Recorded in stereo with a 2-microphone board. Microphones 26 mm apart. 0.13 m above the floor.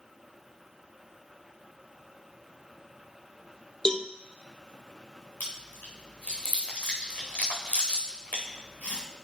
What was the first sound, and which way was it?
A cowbell, 30° left (ahead or behind).